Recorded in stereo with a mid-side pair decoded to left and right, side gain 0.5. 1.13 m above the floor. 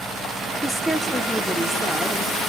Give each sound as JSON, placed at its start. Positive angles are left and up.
{"t": 0.6, "sound": "a woman speaking", "azimuth_deg": 5, "distance_m": 2.5}